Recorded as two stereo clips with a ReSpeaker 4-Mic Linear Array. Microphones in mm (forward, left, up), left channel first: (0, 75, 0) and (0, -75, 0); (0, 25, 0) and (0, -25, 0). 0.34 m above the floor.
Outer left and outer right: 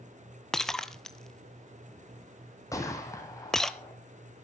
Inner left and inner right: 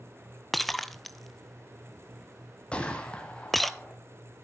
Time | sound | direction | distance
0.5 | breaking glass | 5° left (ahead or behind) | 0.8 m
2.7 | a gunshot | 20° left (ahead or behind) | 3 m